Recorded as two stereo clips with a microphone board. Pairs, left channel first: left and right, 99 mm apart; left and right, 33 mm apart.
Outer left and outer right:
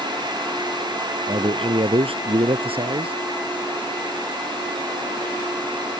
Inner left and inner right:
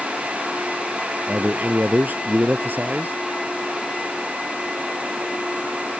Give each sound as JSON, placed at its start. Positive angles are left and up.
{"t": 1.3, "sound": "a man speaking", "side_deg": -70}